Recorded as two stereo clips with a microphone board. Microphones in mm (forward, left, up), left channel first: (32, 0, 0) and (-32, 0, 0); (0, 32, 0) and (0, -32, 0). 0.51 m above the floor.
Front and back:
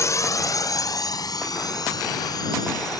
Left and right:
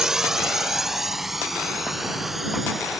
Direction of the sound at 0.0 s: 10° right.